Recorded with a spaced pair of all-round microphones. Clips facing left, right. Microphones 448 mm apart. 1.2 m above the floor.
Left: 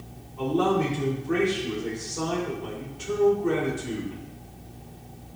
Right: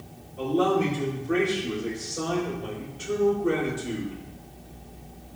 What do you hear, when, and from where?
0.4 s a man speaking: 10° left (ahead or behind), 5 m